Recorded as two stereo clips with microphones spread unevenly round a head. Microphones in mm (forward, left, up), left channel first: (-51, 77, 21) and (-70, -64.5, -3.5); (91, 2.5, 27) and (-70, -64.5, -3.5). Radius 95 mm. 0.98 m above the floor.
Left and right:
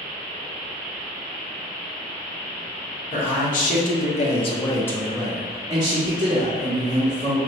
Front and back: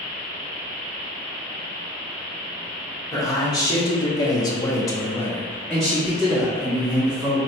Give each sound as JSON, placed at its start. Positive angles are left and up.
{"t": 3.1, "sound": "a man speaking", "azimuth_deg": 95, "distance_m": 1.6}